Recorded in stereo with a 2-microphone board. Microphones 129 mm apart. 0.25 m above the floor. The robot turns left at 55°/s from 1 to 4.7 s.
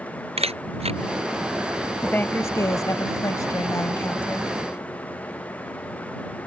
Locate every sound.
0.4 s a camera shutter: 50° right (ahead or behind)
2.0 s a woman speaking: 10° left (ahead or behind); by 4.5 s 5° left (ahead or behind)